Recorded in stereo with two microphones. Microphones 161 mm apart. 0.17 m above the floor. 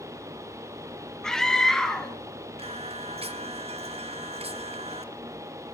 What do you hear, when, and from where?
1.2 s a scream: 5° left (ahead or behind), 1.1 m
2.6 s singing: 40° right (ahead or behind), 0.7 m